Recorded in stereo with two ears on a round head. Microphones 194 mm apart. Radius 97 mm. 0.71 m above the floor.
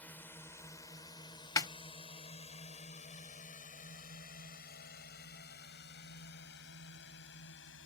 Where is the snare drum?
15° left (ahead or behind).